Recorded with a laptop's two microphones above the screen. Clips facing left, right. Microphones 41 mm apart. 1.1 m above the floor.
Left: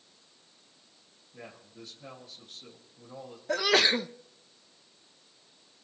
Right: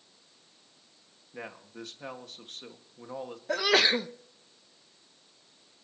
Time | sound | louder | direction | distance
1.3 | a man speaking | right 5 dB | 75° right (ahead or behind) | 1.9 m
3.5 | a sneeze | even | 5° right (ahead or behind) | 0.7 m